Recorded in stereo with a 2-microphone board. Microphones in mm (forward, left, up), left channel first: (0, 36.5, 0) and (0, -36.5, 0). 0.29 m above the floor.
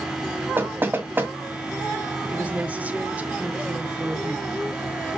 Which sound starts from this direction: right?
Knocking, at 0.6 s.